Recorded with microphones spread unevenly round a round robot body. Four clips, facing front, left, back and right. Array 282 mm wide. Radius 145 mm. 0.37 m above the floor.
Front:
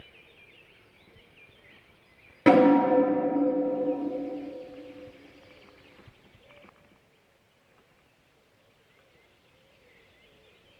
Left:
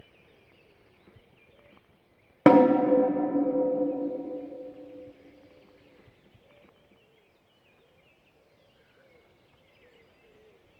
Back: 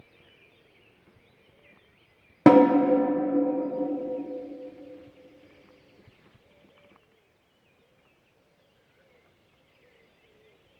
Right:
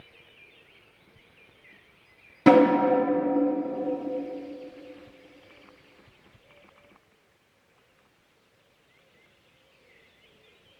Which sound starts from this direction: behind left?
A snare drum, at 2.5 s.